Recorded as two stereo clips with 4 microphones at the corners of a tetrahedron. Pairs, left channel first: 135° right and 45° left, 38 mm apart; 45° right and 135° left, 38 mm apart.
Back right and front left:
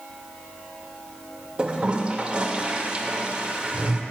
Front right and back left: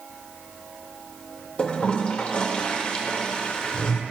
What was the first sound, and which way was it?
A toilet flushing, straight ahead.